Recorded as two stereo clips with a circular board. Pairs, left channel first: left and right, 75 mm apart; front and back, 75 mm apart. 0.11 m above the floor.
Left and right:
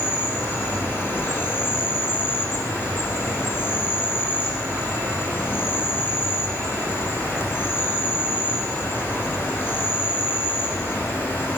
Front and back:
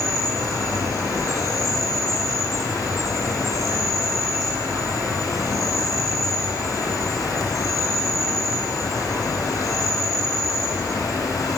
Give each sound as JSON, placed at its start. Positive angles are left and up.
{"t": 0.0, "sound": "an insect", "azimuth_deg": 35, "distance_m": 1.7}